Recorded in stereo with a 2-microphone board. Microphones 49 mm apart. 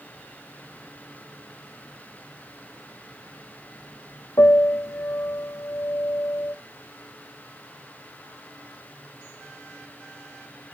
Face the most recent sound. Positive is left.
turn(degrees=80)